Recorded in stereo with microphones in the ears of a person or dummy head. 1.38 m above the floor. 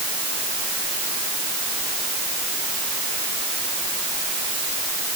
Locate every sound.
Only background noise.